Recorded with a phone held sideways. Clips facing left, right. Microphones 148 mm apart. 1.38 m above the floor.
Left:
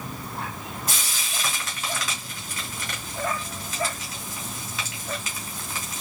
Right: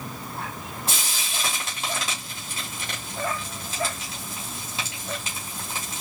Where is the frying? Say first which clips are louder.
Right 1 dB; 30° right (ahead or behind), 2.5 m.